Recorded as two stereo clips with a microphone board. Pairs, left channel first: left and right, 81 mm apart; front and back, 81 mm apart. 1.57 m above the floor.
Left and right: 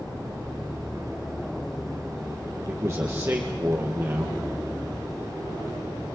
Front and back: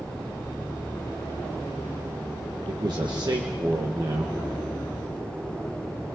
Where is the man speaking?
145° right, 1.6 m.